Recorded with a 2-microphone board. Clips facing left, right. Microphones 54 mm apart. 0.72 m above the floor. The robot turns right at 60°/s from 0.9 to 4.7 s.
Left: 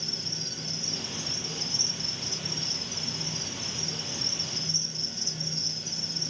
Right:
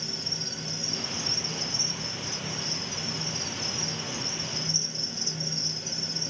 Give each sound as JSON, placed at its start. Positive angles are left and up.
{"t": 0.0, "sound": "an insect", "azimuth_deg": -5, "distance_m": 0.7}